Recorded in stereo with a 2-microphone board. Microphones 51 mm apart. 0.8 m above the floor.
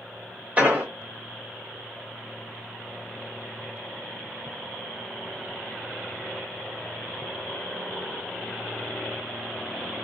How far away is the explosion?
About 1.2 m.